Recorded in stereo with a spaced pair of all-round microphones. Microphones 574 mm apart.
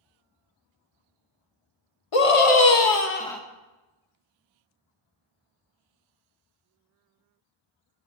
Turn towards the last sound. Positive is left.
turn(degrees=-5)  # may be behind; listen again after turning